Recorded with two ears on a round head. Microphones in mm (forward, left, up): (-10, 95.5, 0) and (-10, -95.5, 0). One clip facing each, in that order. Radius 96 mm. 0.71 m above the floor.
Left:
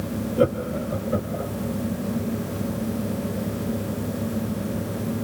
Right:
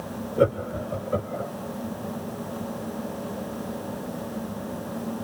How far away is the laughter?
About 1.6 m.